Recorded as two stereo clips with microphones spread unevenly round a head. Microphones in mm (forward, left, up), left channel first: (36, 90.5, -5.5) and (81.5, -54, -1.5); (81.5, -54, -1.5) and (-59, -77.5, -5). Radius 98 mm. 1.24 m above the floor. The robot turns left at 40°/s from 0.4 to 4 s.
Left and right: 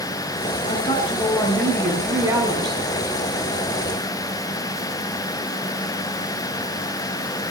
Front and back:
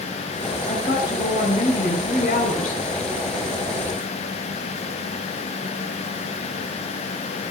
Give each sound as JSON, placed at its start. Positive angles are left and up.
{"t": 0.7, "sound": "a woman speaking", "azimuth_deg": 65, "distance_m": 4.5}